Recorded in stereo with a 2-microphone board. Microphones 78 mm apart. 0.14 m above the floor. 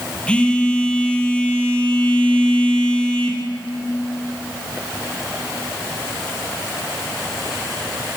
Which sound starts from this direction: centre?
A phone buzzing, at 0.3 s.